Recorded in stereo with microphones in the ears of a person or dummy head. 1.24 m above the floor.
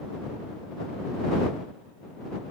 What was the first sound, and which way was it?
Only background noise.